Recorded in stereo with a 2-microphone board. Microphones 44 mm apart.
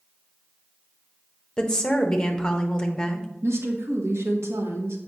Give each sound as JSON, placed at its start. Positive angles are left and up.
{"t": 1.6, "sound": "a woman speaking", "side_deg": 15, "distance_m": 1.0}
{"t": 3.4, "sound": "a woman speaking", "side_deg": -75, "distance_m": 1.4}